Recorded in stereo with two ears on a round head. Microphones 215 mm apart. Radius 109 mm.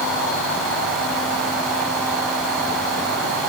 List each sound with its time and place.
Only background noise.